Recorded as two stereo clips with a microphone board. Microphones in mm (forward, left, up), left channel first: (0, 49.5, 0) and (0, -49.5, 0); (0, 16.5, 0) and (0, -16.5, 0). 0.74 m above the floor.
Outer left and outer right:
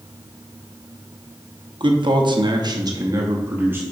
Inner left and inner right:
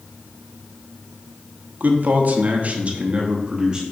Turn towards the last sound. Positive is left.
turn(degrees=-20)  # may be behind; listen again after turning